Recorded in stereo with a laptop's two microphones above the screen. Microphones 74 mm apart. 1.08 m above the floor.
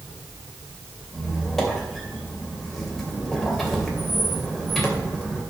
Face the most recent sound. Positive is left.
turn(degrees=0)  # may be behind; listen again after turning